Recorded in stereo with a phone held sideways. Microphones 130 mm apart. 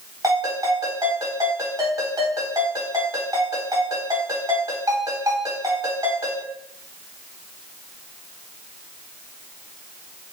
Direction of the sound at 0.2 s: 25° right (ahead or behind).